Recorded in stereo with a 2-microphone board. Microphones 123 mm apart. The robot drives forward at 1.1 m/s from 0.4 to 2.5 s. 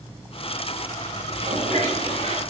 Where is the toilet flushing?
65° right (ahead or behind), 8 m; by 2.4 s 75° right (ahead or behind), 7.5 m.